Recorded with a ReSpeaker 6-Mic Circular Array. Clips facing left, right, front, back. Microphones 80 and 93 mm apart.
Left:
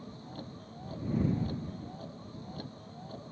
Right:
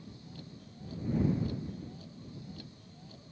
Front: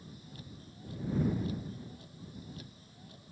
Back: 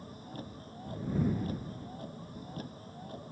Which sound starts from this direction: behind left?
A vehicle, at 0.0 s.